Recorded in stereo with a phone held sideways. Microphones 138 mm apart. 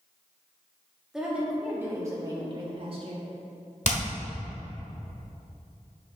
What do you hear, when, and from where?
1.1 s a woman speaking: 5° right (ahead or behind), 1.6 m; by 3.3 s 50° right (ahead or behind), 1.4 m
3.9 s hammering: 65° left (ahead or behind), 1.4 m